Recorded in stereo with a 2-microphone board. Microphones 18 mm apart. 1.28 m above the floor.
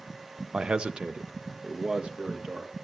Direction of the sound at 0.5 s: 60° right (ahead or behind).